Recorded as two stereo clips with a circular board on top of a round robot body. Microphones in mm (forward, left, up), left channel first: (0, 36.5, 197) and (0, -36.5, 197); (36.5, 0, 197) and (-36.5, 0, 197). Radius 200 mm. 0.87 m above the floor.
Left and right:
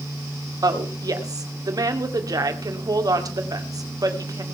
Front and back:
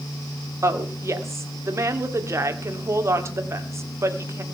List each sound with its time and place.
0.6 s a woman speaking: 125° right, 2.5 m